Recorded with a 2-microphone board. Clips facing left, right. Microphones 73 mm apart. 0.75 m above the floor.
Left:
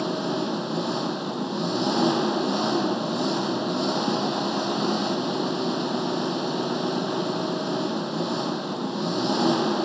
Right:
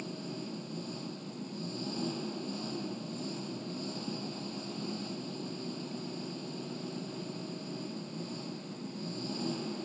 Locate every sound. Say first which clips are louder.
0.0 s an engine running: left 15 dB; 85° left